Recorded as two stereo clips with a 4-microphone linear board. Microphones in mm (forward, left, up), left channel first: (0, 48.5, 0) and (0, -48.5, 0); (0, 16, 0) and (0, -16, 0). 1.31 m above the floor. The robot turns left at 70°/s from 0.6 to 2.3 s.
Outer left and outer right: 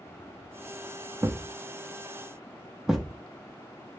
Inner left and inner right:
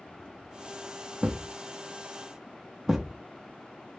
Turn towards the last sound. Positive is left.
turn(degrees=-5)  # may be behind; listen again after turning